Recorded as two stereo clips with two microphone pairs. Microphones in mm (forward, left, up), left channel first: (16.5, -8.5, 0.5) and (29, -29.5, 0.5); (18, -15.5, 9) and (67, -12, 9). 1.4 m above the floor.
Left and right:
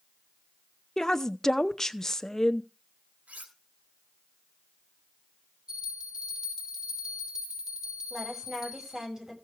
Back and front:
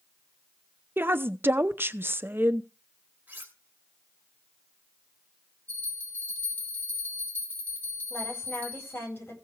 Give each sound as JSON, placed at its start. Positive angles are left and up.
{"t": 1.0, "sound": "a woman speaking", "azimuth_deg": 45, "distance_m": 0.7}
{"t": 3.3, "sound": "cutlery clinking", "azimuth_deg": -50, "distance_m": 3.5}
{"t": 5.7, "sound": "a bell", "azimuth_deg": -120, "distance_m": 4.5}
{"t": 8.1, "sound": "a woman speaking", "azimuth_deg": -130, "distance_m": 9.5}